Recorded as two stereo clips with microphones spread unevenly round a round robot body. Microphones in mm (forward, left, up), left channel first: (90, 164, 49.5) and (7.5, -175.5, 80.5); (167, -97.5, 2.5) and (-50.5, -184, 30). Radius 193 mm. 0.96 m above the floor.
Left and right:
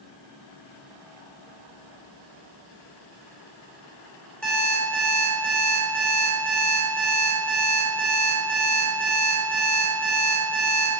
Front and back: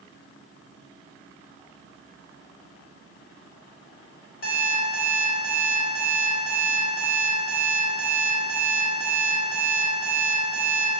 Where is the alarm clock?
10° right, 2 m.